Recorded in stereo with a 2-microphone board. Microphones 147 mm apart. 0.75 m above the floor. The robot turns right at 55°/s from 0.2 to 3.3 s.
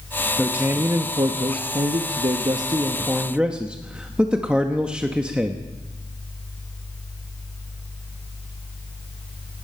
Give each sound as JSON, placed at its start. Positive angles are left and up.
{"t": 0.4, "sound": "a man speaking", "azimuth_deg": -170, "distance_m": 1.0}